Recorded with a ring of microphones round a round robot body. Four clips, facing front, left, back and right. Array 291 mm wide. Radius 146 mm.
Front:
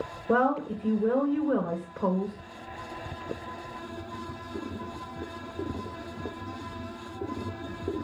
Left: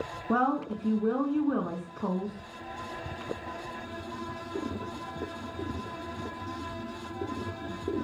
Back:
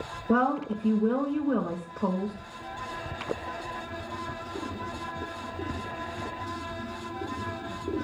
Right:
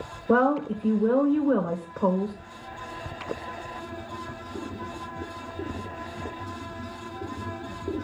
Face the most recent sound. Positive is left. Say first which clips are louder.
# right 6 dB, even
turn(degrees=-75)